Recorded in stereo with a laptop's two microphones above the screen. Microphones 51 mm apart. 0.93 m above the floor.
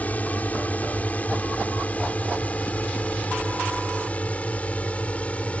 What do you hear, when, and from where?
0.0 s a drone: 30° left (ahead or behind); by 5.6 s 25° left (ahead or behind)